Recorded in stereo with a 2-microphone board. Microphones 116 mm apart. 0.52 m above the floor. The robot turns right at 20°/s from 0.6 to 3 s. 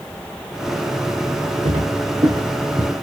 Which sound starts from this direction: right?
Footsteps, at 1.6 s.